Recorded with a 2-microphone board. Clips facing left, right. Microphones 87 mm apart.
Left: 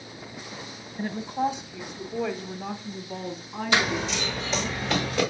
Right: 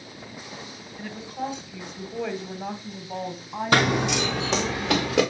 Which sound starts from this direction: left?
A woman speaking, at 1.0 s.